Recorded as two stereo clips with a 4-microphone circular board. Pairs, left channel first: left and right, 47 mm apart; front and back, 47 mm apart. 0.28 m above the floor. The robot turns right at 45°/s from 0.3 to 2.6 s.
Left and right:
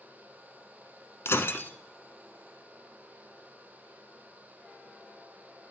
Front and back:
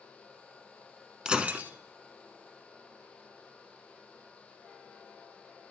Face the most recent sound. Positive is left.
turn(degrees=170)